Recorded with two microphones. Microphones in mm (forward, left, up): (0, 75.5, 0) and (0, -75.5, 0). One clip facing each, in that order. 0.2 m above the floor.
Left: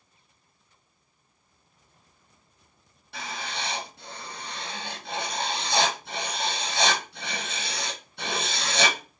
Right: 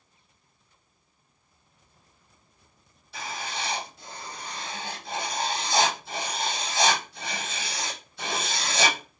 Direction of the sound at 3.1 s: 65° left (ahead or behind).